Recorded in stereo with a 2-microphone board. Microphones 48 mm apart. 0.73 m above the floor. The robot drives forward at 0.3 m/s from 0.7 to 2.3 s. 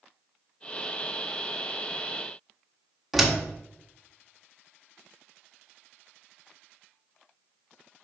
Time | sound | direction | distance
3.1 | a door slam | centre (ahead or behind) | 1.4 m